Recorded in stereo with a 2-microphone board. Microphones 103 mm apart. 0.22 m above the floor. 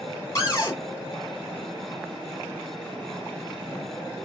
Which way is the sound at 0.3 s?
35° left (ahead or behind).